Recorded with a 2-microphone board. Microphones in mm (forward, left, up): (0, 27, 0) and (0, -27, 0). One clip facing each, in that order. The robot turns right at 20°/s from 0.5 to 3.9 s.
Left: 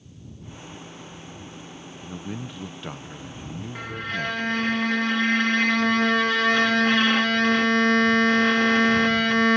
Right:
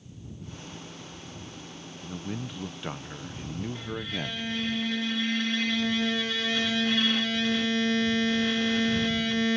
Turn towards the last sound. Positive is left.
turn(degrees=70)  # may be behind; listen again after turning